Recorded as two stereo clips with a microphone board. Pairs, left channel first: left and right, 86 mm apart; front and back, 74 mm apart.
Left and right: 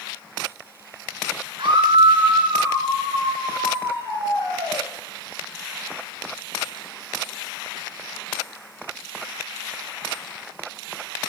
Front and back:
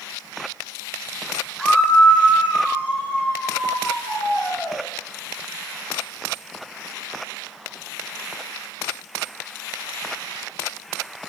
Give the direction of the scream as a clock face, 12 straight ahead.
3 o'clock.